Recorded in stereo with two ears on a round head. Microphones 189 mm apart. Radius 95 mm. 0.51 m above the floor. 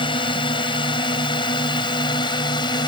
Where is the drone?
25° left (ahead or behind); by 2.9 s 20° left (ahead or behind).